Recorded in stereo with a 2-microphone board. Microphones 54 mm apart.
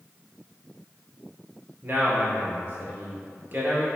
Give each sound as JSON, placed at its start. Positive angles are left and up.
{"t": 1.8, "sound": "a man speaking", "side_deg": -45, "distance_m": 1.7}